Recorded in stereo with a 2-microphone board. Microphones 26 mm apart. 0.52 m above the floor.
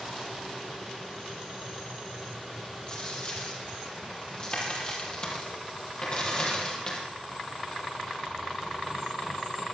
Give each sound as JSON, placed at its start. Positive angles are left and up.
{"t": 2.9, "sound": "a dropped coin", "side_deg": 40, "distance_m": 5.0}